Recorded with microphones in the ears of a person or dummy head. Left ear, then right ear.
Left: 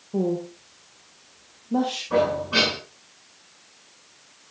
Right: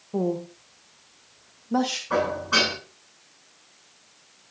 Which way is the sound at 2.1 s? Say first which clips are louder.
Left 1 dB; 55° right (ahead or behind).